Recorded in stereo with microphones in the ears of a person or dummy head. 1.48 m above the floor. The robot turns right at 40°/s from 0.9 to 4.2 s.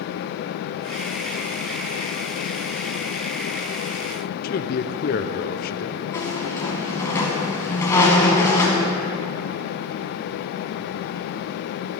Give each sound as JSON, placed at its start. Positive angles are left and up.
{"t": 4.4, "sound": "a man speaking", "side_deg": 50, "distance_m": 0.6}
{"t": 6.1, "sound": "a squeak", "side_deg": 20, "distance_m": 1.6}